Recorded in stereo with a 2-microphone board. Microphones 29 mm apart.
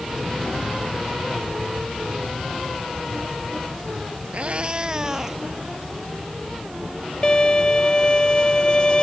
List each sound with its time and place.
4.3 s a cat meowing: 50° right (ahead or behind); by 5.4 s 15° right (ahead or behind)
7.2 s a violin: 30° left (ahead or behind)